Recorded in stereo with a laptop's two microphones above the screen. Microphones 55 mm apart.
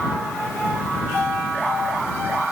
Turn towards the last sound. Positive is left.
No sound to turn to.